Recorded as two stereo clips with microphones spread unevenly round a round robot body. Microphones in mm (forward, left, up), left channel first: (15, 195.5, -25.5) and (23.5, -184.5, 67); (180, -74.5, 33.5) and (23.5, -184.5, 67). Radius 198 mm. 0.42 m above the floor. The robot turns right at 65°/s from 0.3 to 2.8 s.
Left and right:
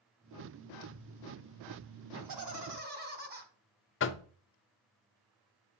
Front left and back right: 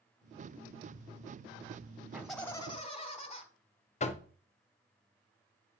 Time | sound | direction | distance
2.1 | laughter | 60° right | 3 m
4.0 | knocking | 60° left | 0.6 m